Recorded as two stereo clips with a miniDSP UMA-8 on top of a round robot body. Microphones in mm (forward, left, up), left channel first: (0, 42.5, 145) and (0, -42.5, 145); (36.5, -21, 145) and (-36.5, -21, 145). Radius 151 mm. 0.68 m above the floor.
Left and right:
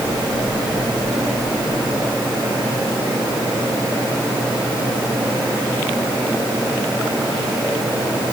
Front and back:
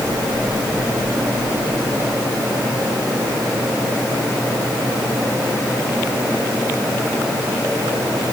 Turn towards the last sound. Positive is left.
No sound to turn to.